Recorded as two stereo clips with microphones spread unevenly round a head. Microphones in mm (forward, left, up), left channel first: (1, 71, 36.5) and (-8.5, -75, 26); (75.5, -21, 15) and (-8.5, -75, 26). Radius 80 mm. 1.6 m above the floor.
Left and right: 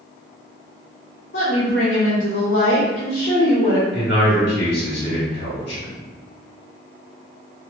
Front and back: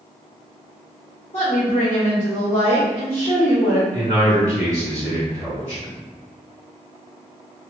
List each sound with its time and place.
1.3 s a woman speaking: 80° left, 1.4 m
3.9 s a man speaking: 110° left, 1.5 m